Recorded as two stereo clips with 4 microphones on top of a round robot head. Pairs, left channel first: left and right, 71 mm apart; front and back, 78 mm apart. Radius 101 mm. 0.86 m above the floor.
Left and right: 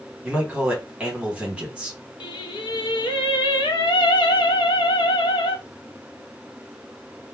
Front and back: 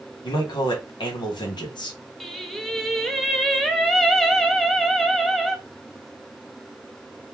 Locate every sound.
0.2 s a man speaking: 15° right, 1.4 m
2.2 s singing: 85° left, 0.6 m